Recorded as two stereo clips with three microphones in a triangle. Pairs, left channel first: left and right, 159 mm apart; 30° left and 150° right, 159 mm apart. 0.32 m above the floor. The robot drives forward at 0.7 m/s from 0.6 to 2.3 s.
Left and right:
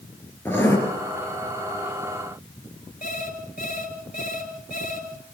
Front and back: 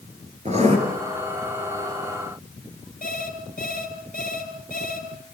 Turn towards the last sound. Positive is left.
turn(degrees=60)